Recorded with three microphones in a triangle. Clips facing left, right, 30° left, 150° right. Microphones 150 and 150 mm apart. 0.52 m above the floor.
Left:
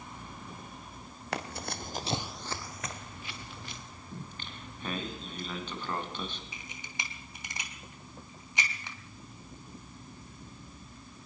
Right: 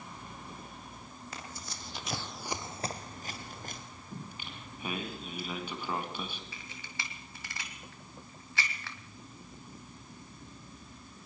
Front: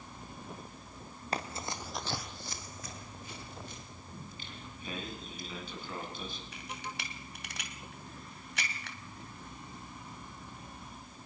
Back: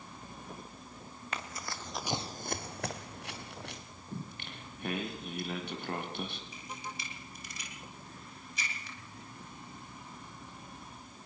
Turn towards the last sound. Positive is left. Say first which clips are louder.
# left 1 dB, front 1 dB
turn(degrees=20)